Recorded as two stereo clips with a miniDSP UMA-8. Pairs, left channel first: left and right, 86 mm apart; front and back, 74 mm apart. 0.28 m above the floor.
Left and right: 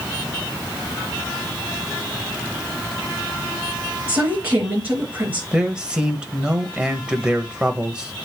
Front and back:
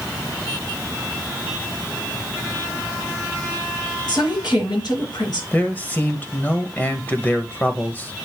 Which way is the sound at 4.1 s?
20° right.